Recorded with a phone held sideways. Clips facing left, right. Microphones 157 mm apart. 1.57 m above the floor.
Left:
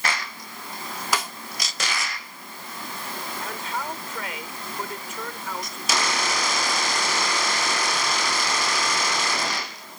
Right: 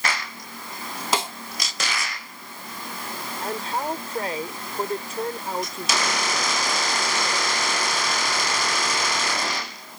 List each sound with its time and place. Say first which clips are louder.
1.1 s a snare drum: right 3 dB; 25° right (ahead or behind)
3.4 s a man speaking: right 6 dB; 35° right (ahead or behind)